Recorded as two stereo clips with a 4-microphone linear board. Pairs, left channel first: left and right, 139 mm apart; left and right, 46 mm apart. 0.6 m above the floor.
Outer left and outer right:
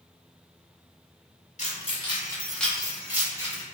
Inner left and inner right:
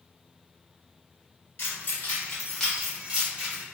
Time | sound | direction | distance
1.6 | keys jangling | 55° left (ahead or behind) | 1.2 m